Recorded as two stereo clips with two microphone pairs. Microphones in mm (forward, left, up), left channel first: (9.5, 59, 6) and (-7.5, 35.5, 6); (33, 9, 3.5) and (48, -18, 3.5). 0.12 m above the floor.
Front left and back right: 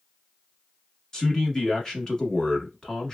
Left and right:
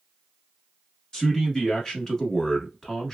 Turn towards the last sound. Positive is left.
turn(degrees=65)